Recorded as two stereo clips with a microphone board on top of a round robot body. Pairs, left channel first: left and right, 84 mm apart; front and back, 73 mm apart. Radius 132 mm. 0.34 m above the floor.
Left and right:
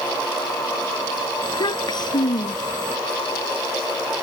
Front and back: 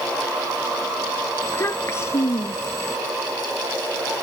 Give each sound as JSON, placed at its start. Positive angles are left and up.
{"t": 1.4, "sound": "a child speaking", "azimuth_deg": 55}